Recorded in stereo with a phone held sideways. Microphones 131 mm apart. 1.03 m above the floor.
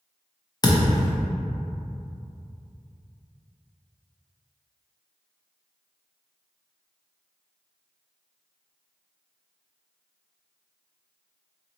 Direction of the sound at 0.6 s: 30° left (ahead or behind).